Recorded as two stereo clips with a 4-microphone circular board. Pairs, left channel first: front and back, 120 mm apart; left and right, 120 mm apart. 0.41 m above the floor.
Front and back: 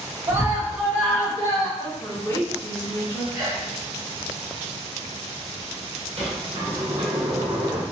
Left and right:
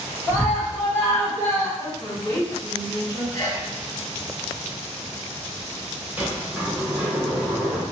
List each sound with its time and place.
0.3 s a scream: 145° left, 1.1 m; by 1.7 s 35° left, 1.2 m
1.8 s a woman speaking: 55° left, 1.9 m
3.3 s a sneeze: 135° left, 1.5 m
6.2 s a sliding door: 160° right, 1.1 m